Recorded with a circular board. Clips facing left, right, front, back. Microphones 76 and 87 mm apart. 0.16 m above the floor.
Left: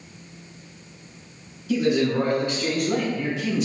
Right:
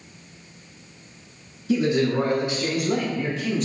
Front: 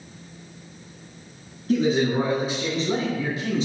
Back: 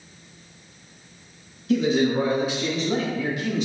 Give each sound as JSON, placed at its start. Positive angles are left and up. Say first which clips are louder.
{"t": 1.7, "sound": "a man speaking", "louder": "even, even", "azimuth_deg": -40, "distance_m": 1.6}